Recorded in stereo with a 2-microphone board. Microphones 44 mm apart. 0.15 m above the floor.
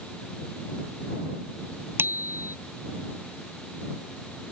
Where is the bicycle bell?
60° right (ahead or behind).